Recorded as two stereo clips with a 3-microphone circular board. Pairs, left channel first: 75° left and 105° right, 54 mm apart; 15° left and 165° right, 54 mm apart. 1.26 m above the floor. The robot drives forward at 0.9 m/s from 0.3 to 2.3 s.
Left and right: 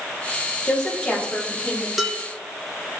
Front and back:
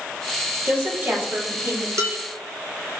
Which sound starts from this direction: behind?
Dishes clattering, at 2.0 s.